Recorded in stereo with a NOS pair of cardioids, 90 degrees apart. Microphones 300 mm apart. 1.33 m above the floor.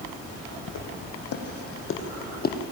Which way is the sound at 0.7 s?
65° left.